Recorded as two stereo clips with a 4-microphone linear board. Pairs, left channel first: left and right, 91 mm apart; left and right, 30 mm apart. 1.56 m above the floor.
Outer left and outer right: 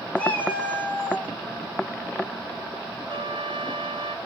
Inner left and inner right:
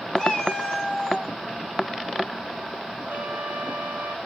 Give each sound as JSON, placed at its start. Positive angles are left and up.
{"t": 0.2, "sound": "a cat meowing", "side_deg": 20, "distance_m": 1.4}
{"t": 3.1, "sound": "a trumpet", "side_deg": -60, "distance_m": 1.2}